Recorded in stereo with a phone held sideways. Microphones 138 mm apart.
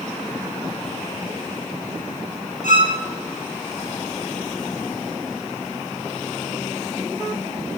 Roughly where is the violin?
Left.